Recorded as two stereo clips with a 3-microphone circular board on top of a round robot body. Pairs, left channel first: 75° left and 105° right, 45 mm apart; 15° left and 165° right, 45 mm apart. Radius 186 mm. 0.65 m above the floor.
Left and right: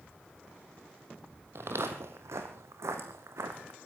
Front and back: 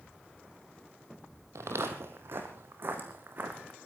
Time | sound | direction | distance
1.6 | footsteps | 140° right | 1.0 m